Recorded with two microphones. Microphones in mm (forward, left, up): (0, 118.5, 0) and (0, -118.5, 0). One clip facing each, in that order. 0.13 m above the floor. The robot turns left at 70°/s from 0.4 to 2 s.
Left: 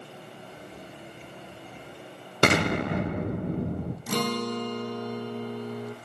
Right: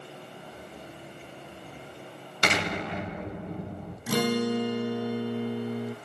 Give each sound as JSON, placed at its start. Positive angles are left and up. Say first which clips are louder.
{"t": 2.4, "sound": "an explosion", "louder": "left 7 dB", "side_deg": 60, "distance_m": 0.9}
{"t": 4.1, "sound": "a guitar", "louder": "right 4 dB", "side_deg": -10, "distance_m": 0.6}